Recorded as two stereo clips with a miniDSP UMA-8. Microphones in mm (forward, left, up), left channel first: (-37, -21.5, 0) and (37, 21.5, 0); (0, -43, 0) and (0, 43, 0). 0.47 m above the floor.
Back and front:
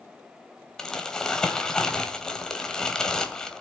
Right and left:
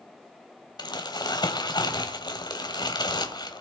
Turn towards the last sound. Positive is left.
turn(degrees=-70)